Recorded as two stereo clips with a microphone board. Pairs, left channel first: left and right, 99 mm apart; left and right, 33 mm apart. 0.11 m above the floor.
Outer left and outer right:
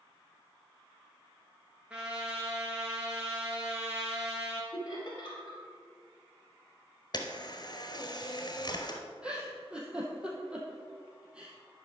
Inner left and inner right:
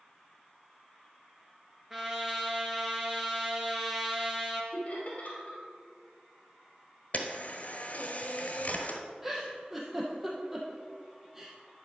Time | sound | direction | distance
1.9 | a trumpet | 10° right (ahead or behind) | 1.8 m
4.7 | laughter | 40° left (ahead or behind) | 2.5 m
7.1 | a camera shutter | 45° left (ahead or behind) | 1.2 m
9.2 | a giggle | 10° right (ahead or behind) | 2.0 m